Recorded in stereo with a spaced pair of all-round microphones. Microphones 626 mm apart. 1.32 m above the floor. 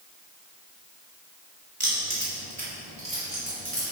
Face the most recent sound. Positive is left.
turn(degrees=-65)  # may be behind; listen again after turning